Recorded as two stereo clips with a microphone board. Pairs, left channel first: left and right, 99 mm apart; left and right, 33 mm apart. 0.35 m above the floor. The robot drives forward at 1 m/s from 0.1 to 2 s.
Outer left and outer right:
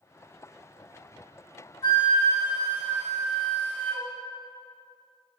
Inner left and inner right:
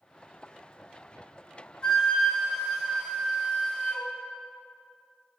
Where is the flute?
25° left (ahead or behind), 1.4 m.